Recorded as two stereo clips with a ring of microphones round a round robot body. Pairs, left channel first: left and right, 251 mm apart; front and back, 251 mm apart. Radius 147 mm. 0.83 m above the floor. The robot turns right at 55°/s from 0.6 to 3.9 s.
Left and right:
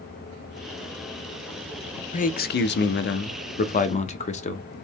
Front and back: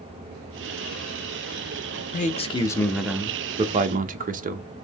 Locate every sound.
2.1 s a man speaking: 40° left, 0.6 m; by 4.8 s 140° left, 0.6 m